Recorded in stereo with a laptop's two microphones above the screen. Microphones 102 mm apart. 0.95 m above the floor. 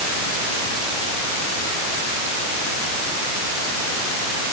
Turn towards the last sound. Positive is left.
No sound to turn to.